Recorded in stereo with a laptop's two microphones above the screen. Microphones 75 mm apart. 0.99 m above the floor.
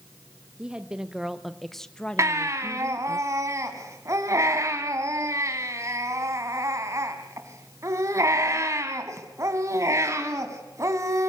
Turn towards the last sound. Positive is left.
turn(degrees=-45)  # may be behind; listen again after turning